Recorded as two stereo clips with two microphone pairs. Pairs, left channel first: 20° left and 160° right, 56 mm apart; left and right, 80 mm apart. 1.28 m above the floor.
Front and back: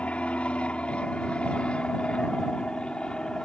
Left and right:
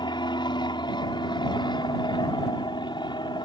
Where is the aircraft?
85° left; by 3.5 s 95° left.